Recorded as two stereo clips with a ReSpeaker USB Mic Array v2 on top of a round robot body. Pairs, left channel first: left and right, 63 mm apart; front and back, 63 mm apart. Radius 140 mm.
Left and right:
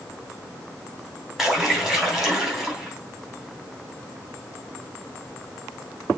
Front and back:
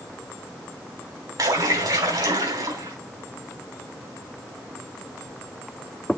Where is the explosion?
I don't hear an explosion.